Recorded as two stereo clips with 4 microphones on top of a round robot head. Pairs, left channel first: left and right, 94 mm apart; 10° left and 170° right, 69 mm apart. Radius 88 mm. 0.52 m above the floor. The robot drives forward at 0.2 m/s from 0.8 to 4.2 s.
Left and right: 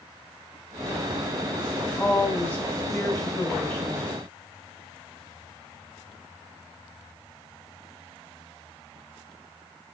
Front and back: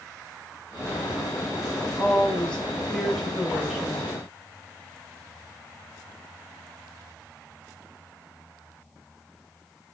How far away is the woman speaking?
About 0.9 m.